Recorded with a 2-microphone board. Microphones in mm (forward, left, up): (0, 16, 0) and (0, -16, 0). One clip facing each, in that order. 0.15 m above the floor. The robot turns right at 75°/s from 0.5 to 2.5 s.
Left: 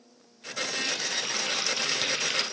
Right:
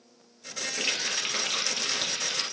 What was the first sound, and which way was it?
A running tap, 70° right.